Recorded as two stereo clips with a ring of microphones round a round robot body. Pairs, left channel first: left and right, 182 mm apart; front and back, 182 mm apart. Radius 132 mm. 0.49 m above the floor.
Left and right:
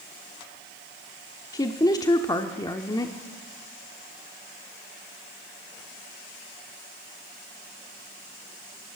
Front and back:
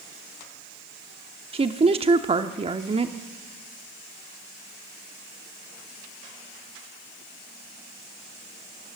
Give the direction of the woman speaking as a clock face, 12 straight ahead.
7 o'clock.